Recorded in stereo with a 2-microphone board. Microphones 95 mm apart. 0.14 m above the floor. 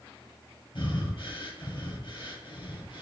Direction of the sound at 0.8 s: 60° left (ahead or behind).